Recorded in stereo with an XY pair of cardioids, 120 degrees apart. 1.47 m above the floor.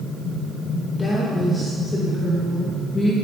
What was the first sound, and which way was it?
A woman speaking, 25° left.